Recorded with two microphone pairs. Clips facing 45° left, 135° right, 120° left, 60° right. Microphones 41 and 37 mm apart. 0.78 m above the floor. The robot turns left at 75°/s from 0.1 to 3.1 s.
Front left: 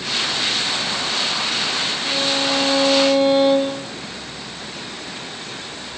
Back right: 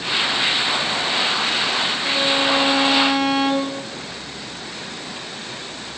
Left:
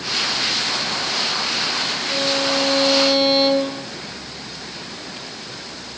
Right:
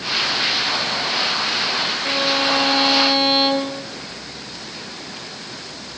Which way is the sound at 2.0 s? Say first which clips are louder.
Back right 2 dB, right 2 dB; 50° right.